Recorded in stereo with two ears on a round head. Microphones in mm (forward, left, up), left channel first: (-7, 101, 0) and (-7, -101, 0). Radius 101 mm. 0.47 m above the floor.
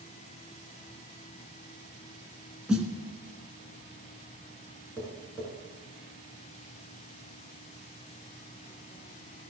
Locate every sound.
2.7 s a snare drum: 5° right (ahead or behind), 2.5 m
5.0 s tapping: 10° left (ahead or behind), 6 m